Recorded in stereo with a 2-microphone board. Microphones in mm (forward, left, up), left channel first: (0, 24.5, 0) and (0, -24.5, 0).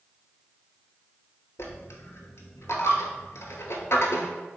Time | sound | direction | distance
1.6 | a dropped coin | 60° left (ahead or behind) | 0.6 m